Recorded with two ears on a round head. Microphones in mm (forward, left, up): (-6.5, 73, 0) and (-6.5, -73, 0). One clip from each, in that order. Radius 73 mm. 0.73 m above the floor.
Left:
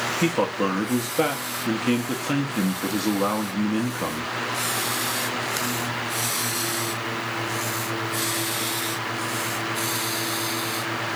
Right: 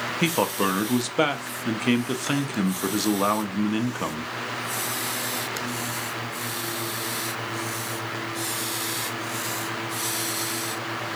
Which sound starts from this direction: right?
A man speaking, at 0.2 s.